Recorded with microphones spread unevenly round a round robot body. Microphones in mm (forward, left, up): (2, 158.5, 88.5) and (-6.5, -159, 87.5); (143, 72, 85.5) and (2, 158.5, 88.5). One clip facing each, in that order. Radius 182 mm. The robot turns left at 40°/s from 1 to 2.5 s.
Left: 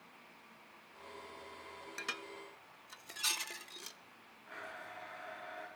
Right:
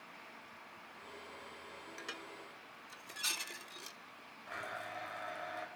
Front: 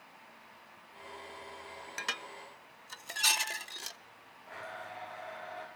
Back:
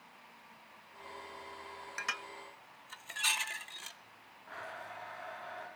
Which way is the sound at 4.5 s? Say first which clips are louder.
Right 4 dB, front 2 dB; 105° right.